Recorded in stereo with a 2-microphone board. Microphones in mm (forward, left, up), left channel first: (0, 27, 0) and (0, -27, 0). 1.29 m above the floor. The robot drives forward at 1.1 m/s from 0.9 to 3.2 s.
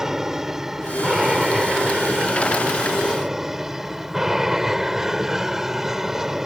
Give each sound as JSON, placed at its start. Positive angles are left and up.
{"t": 0.0, "sound": "an aircraft", "side_deg": -10}